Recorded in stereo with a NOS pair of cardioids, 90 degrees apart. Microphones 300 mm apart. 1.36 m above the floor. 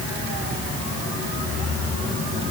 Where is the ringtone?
I don't hear a ringtone.